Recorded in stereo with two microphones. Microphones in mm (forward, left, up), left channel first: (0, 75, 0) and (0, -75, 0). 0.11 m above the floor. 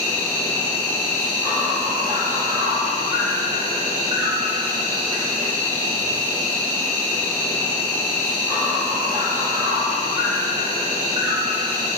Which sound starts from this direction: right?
An insect, at 0.0 s.